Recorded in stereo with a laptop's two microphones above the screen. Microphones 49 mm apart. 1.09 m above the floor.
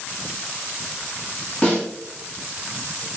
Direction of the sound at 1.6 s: 25° left (ahead or behind).